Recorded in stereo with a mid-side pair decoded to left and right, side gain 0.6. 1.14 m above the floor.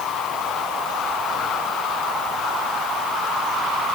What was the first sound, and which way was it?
Only background noise.